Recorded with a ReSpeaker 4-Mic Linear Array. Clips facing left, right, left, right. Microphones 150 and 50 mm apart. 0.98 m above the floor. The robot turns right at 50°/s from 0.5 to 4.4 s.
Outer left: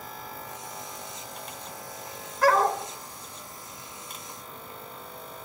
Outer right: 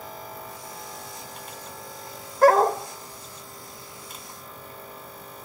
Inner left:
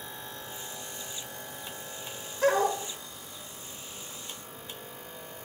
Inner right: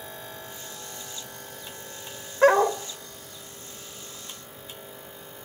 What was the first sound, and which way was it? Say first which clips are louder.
A dog barking: outer right 5 dB, inner right 6 dB; 45° right (ahead or behind).